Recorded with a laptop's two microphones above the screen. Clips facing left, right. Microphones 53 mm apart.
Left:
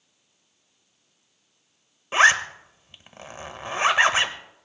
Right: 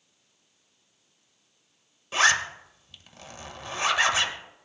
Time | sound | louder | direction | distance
2.1 | a zipper | left 5 dB | 30° left (ahead or behind) | 1.4 m